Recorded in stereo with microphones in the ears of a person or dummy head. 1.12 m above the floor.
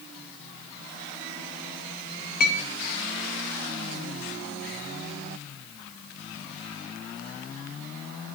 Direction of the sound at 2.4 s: 45° left (ahead or behind).